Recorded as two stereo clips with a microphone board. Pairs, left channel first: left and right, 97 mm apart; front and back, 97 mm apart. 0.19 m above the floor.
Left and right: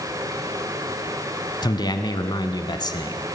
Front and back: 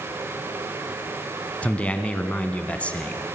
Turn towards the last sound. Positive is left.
turn(degrees=70)